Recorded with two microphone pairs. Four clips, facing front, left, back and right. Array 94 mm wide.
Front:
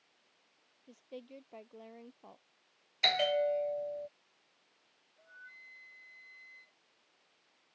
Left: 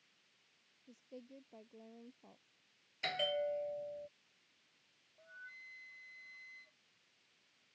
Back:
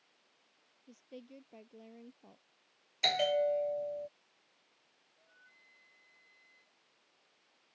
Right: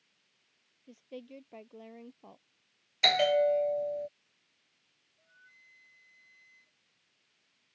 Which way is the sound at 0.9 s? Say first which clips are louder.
Right 8 dB, front 3 dB; 40° right.